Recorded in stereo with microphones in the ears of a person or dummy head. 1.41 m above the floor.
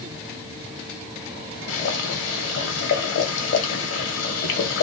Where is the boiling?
60° left (ahead or behind), 1.1 m.